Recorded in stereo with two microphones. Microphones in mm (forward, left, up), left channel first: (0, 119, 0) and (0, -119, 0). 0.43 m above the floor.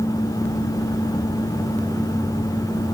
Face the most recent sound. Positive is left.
No sound to turn to.